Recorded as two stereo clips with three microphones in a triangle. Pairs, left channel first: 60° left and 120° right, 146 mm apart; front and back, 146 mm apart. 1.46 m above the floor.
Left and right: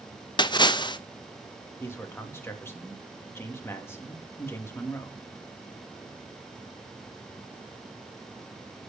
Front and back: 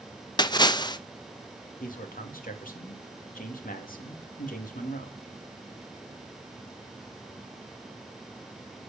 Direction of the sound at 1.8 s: 15° right.